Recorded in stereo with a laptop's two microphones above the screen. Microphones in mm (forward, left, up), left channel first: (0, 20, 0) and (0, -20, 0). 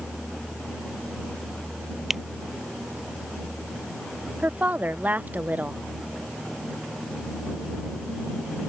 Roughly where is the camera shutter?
Centre.